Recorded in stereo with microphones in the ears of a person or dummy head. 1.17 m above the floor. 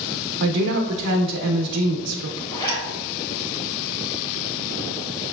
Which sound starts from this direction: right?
A woman speaking, at 0.4 s.